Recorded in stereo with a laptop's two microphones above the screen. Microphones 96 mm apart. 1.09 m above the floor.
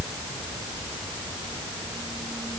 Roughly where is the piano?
I don't hear a piano.